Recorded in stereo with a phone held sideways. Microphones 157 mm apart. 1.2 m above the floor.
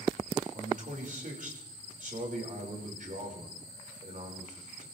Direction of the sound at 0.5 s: 60° right (ahead or behind).